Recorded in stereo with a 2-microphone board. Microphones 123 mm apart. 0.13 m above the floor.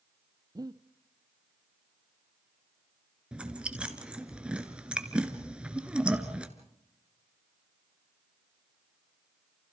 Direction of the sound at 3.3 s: 10° right (ahead or behind).